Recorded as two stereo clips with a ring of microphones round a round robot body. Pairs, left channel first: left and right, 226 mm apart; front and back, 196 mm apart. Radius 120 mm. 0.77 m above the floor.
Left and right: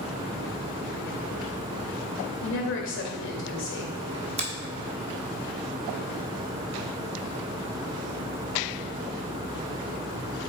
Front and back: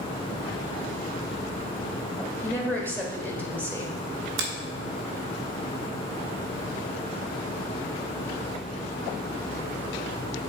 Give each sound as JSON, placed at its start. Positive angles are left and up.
{"t": 2.4, "sound": "a woman speaking", "azimuth_deg": 80, "distance_m": 1.8}
{"t": 4.4, "sound": "a finger snap", "azimuth_deg": -150, "distance_m": 1.3}